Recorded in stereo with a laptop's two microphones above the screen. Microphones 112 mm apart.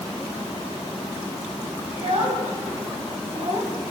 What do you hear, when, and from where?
1.9 s a child speaking: 85° right, 5 m; by 3.9 s 75° right (ahead or behind), 5 m